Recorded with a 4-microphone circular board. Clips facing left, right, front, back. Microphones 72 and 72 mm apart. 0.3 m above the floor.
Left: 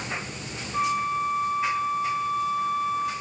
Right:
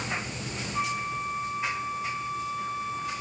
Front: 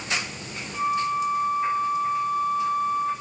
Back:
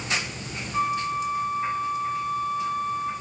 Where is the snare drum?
No snare drum in this recording.